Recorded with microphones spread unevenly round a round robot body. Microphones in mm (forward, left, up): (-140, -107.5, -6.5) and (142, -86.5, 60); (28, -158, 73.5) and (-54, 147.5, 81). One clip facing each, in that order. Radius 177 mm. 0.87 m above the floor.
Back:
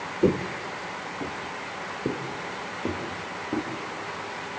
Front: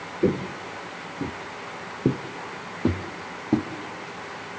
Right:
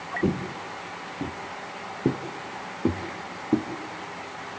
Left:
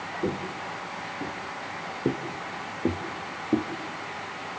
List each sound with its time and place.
0.2 s footsteps: 65° right, 1.0 m; by 3.7 s straight ahead, 3 m